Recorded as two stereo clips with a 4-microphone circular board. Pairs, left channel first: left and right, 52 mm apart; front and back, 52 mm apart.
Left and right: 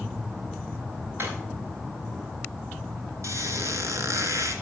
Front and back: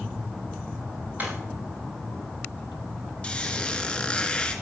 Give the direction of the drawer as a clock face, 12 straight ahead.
4 o'clock.